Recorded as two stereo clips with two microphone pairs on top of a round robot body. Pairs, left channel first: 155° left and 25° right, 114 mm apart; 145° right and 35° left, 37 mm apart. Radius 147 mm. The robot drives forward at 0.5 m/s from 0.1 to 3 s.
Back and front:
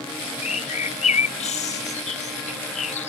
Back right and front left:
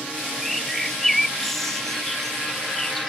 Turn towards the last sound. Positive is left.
turn(degrees=135)